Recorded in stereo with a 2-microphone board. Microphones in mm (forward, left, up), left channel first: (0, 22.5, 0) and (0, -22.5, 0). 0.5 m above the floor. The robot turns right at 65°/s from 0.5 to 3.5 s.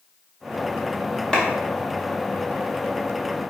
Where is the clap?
20° left (ahead or behind), 1.1 m; by 1.4 s 15° left (ahead or behind), 1.1 m.